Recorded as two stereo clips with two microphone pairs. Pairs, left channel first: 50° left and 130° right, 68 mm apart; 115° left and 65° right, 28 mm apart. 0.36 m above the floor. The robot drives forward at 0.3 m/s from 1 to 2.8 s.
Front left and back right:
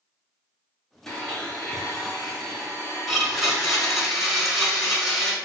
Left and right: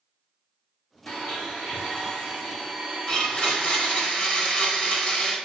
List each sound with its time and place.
1.1 s a blender: 125° left, 1.5 m; by 4.1 s 140° left, 1.8 m
3.1 s a blender: 145° left, 1.1 m